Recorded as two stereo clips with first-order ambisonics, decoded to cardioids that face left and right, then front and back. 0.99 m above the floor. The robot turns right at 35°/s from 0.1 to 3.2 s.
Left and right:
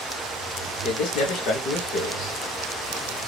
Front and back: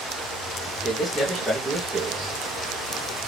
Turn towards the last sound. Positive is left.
turn(degrees=155)